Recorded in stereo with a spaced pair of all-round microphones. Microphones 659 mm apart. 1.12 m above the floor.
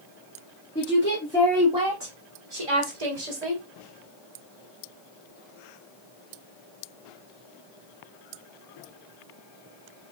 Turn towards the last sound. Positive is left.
turn(degrees=-80)